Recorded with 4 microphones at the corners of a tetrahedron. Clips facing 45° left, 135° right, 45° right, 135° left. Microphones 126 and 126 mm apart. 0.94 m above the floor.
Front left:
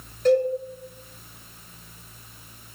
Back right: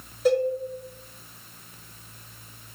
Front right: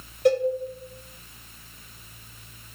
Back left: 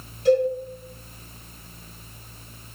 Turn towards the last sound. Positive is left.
turn(degrees=-55)